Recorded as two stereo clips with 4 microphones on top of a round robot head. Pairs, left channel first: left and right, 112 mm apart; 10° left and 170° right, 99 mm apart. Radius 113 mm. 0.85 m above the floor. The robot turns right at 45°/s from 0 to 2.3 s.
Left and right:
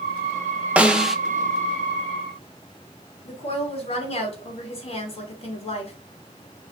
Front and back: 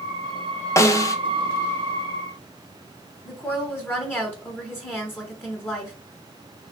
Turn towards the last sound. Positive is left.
turn(degrees=80)